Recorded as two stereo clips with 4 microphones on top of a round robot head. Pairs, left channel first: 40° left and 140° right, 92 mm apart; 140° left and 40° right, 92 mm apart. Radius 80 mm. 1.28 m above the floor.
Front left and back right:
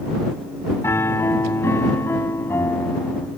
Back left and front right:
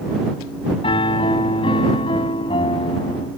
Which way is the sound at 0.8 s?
105° left.